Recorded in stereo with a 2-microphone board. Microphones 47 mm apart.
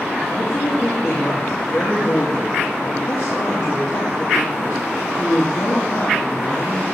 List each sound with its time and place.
0.3 s a woman speaking: 50° left (ahead or behind), 1.5 m